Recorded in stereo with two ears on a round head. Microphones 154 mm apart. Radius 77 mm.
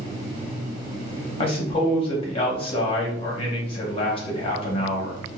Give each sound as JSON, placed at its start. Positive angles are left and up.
{"t": 1.4, "sound": "a man speaking", "side_deg": 30, "distance_m": 1.0}